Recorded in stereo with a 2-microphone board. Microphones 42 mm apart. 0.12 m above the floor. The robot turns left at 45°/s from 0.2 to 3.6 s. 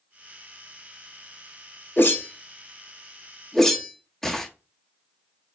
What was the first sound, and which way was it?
A whoosh, 60° left (ahead or behind).